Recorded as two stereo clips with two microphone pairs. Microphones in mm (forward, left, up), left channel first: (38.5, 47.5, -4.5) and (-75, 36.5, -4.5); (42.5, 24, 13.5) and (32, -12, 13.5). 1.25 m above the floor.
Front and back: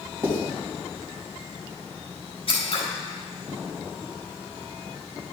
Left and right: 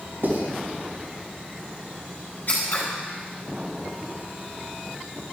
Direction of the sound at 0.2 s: 110° right.